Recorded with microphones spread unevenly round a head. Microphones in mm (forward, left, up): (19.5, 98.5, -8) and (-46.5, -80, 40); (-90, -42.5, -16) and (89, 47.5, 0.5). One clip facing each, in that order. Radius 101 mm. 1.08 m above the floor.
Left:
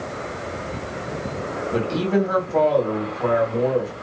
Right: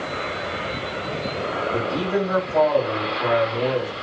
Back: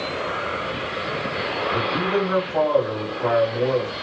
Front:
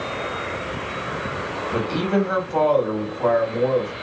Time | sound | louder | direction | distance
1.7 | a man speaking | left 4 dB, front 3 dB | 30° left | 1.5 m